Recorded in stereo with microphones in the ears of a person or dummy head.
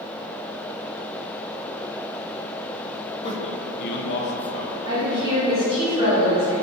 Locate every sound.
3.2 s a man speaking: 25° left (ahead or behind), 0.7 m; by 4.8 s 85° left, 0.9 m
4.8 s a woman speaking: 35° right (ahead or behind), 1.7 m